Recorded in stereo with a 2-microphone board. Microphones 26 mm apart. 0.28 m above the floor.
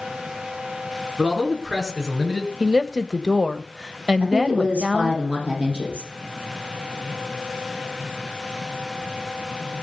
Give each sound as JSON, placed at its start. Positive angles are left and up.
{"t": 1.2, "sound": "a man speaking", "side_deg": -15, "distance_m": 4.0}
{"t": 2.6, "sound": "a woman speaking", "side_deg": -25, "distance_m": 1.1}
{"t": 4.2, "sound": "a woman speaking", "side_deg": -60, "distance_m": 9.5}